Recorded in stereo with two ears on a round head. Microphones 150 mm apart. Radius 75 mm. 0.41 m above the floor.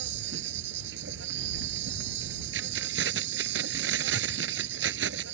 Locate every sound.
0.0 s an insect: 75° right (ahead or behind)
2.5 s keys jangling: 80° right